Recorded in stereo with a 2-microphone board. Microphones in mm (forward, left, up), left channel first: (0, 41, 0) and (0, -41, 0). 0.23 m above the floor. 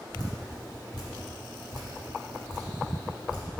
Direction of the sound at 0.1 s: 65° left (ahead or behind).